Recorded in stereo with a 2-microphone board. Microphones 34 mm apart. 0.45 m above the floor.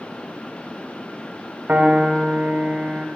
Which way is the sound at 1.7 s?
65° right (ahead or behind).